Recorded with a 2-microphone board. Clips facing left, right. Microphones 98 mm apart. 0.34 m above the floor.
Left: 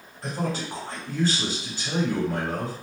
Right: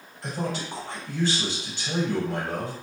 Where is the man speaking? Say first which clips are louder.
Left 1 dB; 35° left (ahead or behind), 1.6 m.